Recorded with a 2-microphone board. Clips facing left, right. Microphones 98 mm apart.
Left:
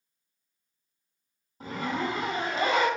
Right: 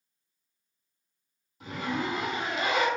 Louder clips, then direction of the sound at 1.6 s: Left 1 dB; 35° left (ahead or behind).